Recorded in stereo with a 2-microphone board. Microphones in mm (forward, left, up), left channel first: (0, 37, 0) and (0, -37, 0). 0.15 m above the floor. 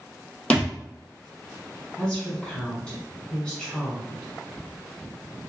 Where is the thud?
15° left (ahead or behind), 1.1 m.